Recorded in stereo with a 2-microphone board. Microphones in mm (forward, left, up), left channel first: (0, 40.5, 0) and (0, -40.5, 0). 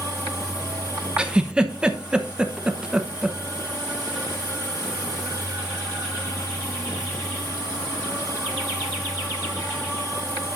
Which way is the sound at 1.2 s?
10° right (ahead or behind).